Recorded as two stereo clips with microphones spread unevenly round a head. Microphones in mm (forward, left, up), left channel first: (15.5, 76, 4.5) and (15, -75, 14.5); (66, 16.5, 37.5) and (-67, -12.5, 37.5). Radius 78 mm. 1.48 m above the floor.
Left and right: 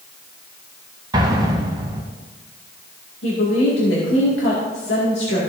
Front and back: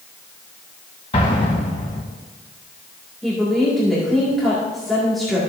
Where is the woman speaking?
100° left, 2 m.